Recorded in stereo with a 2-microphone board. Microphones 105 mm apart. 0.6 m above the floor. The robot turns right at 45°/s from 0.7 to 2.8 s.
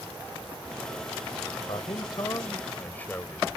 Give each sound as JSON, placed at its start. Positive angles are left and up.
{"t": 1.7, "sound": "a man speaking", "azimuth_deg": 110}